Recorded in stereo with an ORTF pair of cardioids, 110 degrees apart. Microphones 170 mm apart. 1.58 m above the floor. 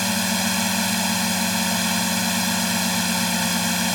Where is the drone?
Straight ahead.